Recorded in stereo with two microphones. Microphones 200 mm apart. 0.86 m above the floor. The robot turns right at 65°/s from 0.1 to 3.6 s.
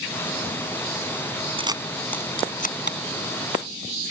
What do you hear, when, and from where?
1.6 s a camera shutter: 25° right (ahead or behind); by 3.0 s 65° left (ahead or behind)